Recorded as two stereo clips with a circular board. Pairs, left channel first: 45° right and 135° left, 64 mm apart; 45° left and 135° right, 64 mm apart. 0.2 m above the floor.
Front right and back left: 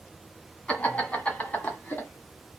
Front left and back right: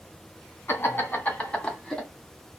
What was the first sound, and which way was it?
Laughter, 15° left.